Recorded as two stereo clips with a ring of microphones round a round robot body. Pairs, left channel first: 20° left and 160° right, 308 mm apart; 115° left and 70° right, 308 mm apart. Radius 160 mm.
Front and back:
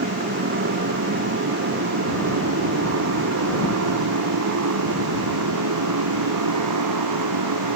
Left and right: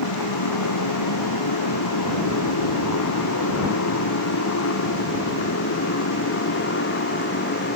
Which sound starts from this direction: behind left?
A motorcycle, at 0.0 s.